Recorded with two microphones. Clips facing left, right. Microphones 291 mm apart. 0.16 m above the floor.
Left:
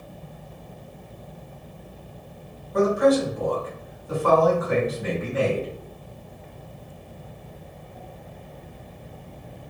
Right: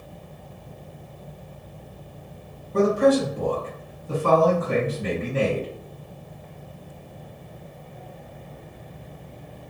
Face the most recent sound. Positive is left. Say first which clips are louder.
# right 1 dB
turn(degrees=-35)  # may be behind; listen again after turning